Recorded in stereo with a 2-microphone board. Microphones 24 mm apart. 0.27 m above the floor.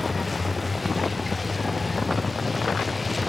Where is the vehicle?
5° right (ahead or behind).